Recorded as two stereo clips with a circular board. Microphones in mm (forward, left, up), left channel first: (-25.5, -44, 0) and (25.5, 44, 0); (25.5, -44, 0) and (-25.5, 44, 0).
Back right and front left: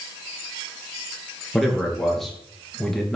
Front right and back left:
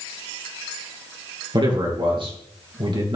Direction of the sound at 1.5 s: 150° left.